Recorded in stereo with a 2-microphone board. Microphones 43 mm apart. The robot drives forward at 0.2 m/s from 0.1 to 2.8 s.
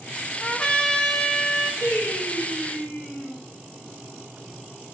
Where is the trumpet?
20° left (ahead or behind), 0.8 m; by 1.7 s 15° left (ahead or behind), 1.0 m.